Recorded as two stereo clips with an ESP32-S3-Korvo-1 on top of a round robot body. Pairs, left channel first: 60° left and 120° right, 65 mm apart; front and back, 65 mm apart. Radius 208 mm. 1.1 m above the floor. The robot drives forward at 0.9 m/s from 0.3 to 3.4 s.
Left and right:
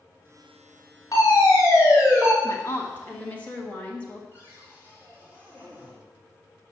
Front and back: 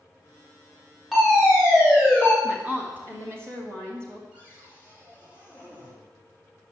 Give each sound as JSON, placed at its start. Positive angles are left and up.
{"t": 1.1, "sound": "a fire alarm", "azimuth_deg": 95, "distance_m": 4.5}
{"t": 2.4, "sound": "a woman speaking", "azimuth_deg": 105, "distance_m": 1.8}
{"t": 4.3, "sound": "a cupboard door", "azimuth_deg": 115, "distance_m": 6.0}